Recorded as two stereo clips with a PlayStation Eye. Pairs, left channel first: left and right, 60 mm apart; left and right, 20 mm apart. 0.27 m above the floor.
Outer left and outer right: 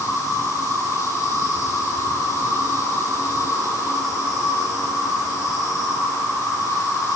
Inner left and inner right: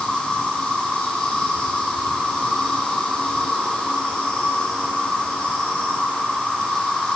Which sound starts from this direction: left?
An insect, at 0.0 s.